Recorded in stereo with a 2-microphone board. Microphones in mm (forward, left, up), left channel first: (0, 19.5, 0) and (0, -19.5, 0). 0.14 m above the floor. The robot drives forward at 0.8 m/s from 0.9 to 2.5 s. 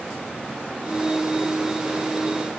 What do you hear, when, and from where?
Only background noise.